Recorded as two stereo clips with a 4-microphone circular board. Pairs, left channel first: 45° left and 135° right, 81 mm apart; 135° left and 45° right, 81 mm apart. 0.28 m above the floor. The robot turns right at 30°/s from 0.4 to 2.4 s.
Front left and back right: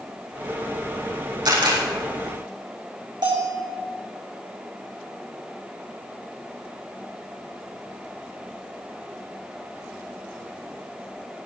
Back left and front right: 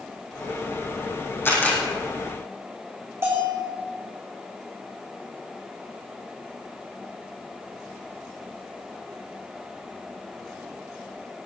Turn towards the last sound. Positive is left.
turn(degrees=-105)